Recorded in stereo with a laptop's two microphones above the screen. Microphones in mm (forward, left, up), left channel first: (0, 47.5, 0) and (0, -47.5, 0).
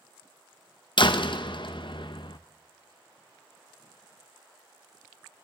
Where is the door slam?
60° left (ahead or behind), 0.6 m.